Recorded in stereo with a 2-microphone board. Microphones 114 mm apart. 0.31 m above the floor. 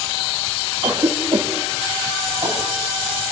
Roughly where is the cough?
Right.